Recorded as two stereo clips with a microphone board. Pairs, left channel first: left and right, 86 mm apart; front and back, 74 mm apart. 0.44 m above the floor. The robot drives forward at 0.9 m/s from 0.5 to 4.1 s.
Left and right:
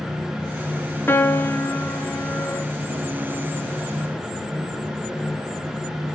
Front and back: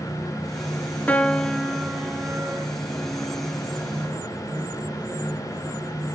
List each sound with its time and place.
1.1 s a piano: 45° left, 1.4 m; by 2.7 s 145° left, 1.5 m